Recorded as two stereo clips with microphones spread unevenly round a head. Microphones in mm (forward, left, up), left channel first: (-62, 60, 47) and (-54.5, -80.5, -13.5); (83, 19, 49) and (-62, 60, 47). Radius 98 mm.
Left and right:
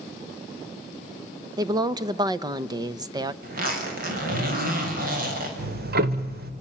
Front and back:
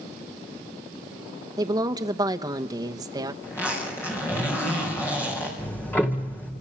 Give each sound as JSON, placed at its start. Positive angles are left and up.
{"t": 1.6, "sound": "a woman speaking", "azimuth_deg": -130, "distance_m": 1.0}
{"t": 3.4, "sound": "a zipper", "azimuth_deg": -95, "distance_m": 6.0}
{"t": 5.6, "sound": "ticking", "azimuth_deg": -95, "distance_m": 2.0}